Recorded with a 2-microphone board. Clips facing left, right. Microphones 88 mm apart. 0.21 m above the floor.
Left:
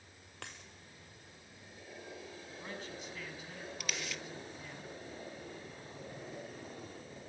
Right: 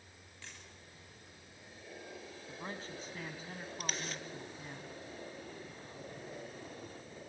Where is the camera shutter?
40° right (ahead or behind), 0.8 m.